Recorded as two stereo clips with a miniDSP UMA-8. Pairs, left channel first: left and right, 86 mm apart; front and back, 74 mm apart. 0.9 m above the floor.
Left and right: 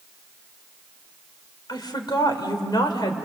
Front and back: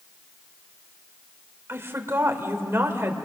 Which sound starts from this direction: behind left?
A woman speaking, at 1.7 s.